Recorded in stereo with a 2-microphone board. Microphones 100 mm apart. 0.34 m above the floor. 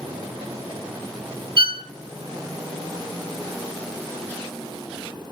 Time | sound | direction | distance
1.6 | a violin | 55° right (ahead or behind) | 0.6 m